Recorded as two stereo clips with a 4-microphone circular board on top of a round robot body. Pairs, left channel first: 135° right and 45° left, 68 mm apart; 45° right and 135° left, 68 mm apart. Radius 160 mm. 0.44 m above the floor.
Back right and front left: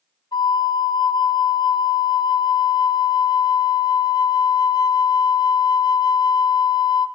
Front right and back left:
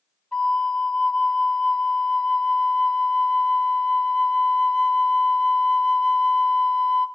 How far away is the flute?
About 0.9 m.